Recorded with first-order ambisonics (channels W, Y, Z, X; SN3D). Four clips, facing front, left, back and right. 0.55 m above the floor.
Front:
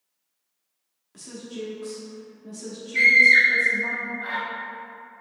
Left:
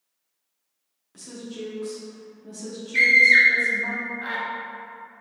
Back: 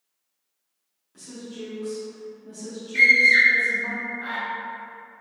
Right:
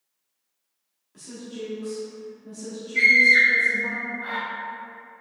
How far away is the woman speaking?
About 0.6 m.